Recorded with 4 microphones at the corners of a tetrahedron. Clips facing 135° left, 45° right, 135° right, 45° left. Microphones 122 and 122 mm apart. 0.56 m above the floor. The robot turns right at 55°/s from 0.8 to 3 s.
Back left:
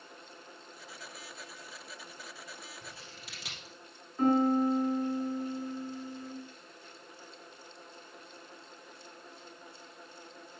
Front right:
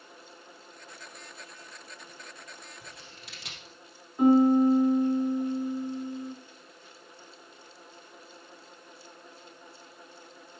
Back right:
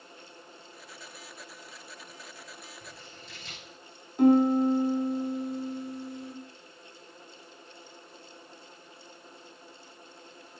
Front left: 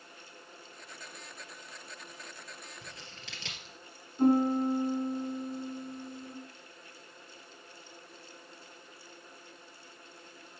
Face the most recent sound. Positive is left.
turn(degrees=-120)